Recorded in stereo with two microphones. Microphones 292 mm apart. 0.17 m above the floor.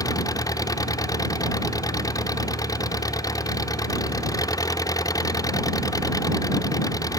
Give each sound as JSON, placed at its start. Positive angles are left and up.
{"t": 0.0, "sound": "an engine running", "side_deg": 10}